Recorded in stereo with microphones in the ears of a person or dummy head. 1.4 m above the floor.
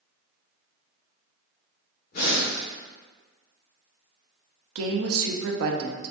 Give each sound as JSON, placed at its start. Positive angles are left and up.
{"t": 2.1, "sound": "breathing", "side_deg": 60, "distance_m": 1.6}
{"t": 4.8, "sound": "a woman speaking", "side_deg": -85, "distance_m": 0.6}